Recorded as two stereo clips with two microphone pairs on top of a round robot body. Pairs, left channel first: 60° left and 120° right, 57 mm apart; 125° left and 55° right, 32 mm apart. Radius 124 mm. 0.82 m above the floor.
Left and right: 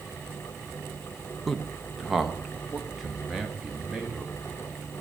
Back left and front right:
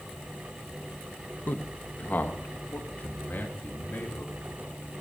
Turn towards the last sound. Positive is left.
turn(degrees=160)